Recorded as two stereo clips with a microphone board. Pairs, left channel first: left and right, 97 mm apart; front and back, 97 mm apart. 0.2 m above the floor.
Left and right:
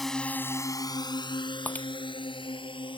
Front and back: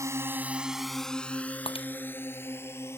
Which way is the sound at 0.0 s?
Straight behind.